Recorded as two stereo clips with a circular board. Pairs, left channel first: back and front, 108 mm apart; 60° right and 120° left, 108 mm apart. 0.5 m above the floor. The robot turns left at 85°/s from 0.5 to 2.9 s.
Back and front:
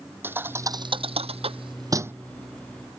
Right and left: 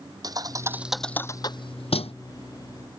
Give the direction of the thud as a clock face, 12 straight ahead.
10 o'clock.